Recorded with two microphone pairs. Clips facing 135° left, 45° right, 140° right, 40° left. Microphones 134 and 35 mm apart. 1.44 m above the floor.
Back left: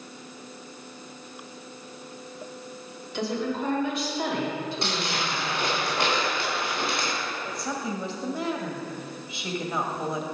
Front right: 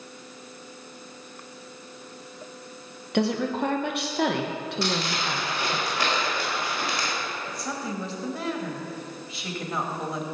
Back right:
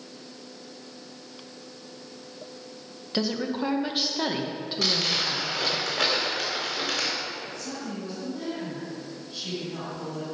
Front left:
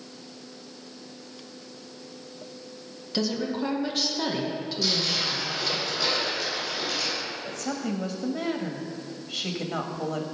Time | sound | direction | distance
3.1 | a woman speaking | 70° right | 1.4 m
4.8 | crumpling | 155° right | 4.5 m
7.4 | a woman speaking | 45° left | 1.9 m